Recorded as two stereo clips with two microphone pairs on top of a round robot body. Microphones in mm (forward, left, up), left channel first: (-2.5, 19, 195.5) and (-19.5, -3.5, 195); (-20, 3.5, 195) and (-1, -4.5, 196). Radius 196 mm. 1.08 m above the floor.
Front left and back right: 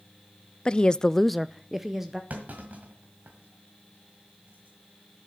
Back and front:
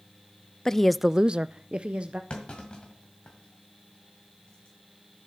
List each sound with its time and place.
0.7 s a woman speaking: 105° left, 0.6 m; by 2.2 s 55° right, 1.2 m
2.3 s a clunk: 155° right, 1.5 m